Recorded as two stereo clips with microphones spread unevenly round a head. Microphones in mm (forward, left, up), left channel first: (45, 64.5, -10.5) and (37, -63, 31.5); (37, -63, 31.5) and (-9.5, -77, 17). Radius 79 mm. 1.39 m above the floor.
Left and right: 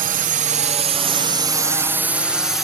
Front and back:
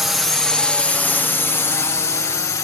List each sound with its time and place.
0.0 s a drone: 90° right; by 2.6 s 5° left